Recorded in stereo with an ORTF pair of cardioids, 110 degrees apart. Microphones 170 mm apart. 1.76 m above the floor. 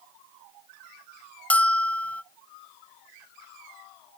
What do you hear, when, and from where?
1.5 s a bell: 5° left, 0.5 m